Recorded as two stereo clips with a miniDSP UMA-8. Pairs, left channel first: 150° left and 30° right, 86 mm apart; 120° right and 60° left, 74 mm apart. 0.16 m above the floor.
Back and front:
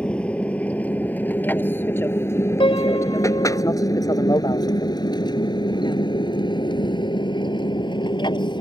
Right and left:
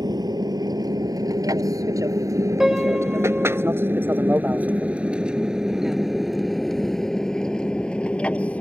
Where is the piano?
145° left.